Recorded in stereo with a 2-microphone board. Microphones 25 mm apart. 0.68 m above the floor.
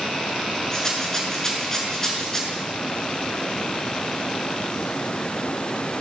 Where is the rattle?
25° left (ahead or behind), 6.5 m.